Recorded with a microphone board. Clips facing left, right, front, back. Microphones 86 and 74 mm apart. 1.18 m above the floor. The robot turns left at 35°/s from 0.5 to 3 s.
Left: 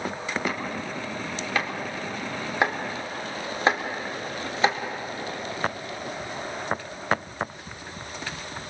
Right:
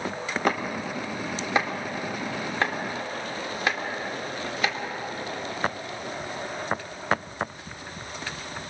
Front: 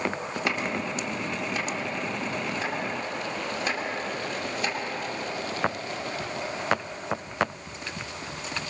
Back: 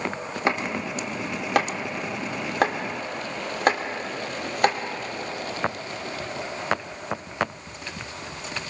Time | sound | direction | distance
0.5 | chopping | 125° right | 2.5 m